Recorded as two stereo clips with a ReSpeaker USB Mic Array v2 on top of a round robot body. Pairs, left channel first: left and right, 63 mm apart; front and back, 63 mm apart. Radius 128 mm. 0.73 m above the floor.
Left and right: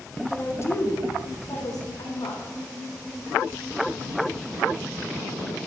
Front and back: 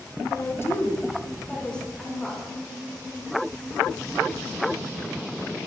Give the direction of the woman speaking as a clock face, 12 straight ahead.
11 o'clock.